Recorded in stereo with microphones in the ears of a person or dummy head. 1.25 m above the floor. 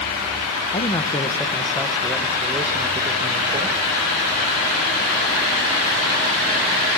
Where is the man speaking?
25° left (ahead or behind), 1.3 m; by 3.9 s 30° right (ahead or behind), 2 m.